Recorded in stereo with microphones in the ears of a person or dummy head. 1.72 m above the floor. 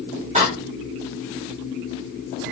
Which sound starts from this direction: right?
A door slam, at 0.3 s.